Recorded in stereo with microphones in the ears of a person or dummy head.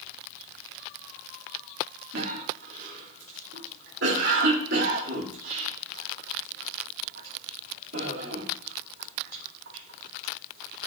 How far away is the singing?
I don't hear singing.